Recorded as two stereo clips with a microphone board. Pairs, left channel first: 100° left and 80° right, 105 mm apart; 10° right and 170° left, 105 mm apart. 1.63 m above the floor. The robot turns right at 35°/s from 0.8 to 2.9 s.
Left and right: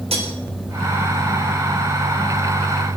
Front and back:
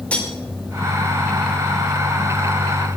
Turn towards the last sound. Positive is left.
turn(degrees=-15)